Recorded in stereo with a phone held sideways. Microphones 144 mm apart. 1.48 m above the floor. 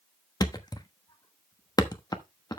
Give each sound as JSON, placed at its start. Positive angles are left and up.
{"t": 0.4, "sound": "a thud", "side_deg": 25, "distance_m": 1.0}